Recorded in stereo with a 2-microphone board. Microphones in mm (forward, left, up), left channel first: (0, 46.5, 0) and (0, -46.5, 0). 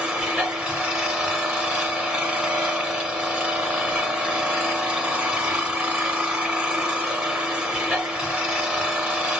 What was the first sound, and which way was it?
An engine running, 10° right (ahead or behind).